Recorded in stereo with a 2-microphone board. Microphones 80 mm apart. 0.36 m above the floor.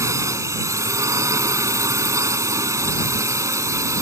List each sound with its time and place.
0.0 s a drone: 40° right (ahead or behind)